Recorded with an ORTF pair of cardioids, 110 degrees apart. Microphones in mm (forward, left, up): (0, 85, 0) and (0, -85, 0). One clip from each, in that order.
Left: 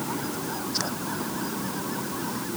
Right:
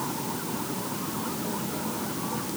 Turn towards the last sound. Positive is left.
No sound to turn to.